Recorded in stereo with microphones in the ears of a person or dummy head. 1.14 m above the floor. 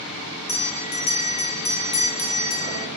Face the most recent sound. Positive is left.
turn(degrees=35)  # may be behind; listen again after turning